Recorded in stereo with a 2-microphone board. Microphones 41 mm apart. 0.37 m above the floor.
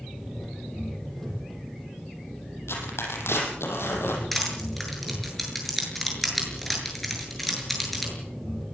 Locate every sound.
0.0 s an engine running: 5° left (ahead or behind), 7.5 m
2.7 s tearing paper: 80° left, 6.5 m
4.3 s crushing: 5° left (ahead or behind), 7.5 m